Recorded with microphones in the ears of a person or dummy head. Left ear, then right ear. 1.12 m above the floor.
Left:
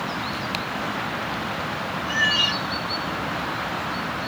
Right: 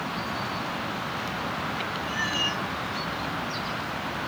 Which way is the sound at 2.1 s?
55° left (ahead or behind).